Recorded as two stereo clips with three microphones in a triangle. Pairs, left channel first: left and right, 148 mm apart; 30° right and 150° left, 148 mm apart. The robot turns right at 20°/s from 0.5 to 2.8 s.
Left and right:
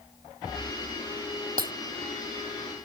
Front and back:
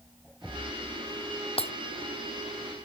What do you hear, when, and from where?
1.6 s breaking glass: 80° right